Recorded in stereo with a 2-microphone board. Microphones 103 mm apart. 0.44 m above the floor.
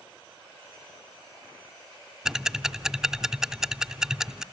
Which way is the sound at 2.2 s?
5° right (ahead or behind).